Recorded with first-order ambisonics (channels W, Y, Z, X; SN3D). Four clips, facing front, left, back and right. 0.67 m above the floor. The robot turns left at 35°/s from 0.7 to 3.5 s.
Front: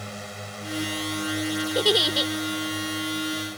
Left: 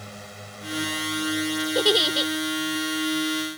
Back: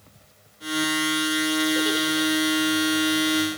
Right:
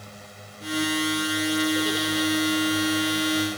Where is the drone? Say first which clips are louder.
Left 3 dB, front 20 dB; 15° left; by 3.6 s 85° right.